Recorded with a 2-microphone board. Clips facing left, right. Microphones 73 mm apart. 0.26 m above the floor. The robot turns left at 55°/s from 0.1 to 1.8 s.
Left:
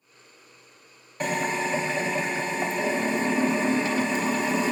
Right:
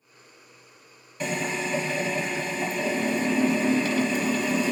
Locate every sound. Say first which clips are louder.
1.2 s a drill: left 2 dB; 80° left, 0.8 m; by 4.7 s 45° left, 0.8 m